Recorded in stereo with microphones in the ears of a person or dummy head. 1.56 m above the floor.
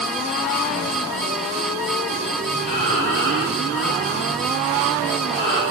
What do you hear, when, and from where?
2.6 s breathing: 65° left (ahead or behind), 9 m